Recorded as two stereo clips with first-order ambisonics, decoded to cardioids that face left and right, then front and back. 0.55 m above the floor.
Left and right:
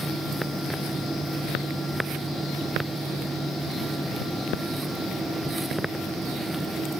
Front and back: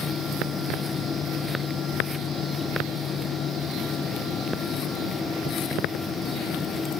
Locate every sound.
Only background noise.